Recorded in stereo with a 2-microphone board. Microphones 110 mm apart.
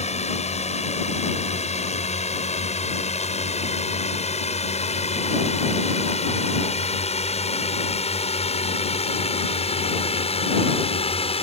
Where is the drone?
80° left; by 11.4 s 60° left (ahead or behind).